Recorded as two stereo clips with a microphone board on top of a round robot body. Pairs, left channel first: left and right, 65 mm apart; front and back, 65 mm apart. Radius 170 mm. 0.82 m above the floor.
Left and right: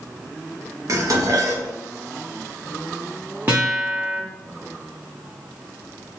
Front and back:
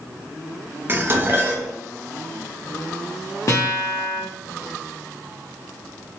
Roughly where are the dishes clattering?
Behind right.